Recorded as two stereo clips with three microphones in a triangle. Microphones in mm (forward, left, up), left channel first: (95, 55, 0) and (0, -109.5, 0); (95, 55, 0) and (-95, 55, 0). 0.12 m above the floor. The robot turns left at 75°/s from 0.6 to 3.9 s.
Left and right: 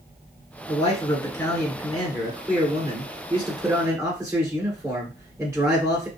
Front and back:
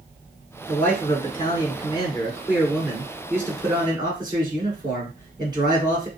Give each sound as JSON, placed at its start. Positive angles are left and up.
{"t": 0.7, "sound": "a man speaking", "azimuth_deg": 75, "distance_m": 1.8}